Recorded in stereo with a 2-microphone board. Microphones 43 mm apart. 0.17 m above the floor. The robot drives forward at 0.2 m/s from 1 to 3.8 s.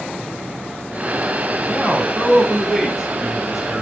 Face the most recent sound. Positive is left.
turn(degrees=-10)  # may be behind; listen again after turning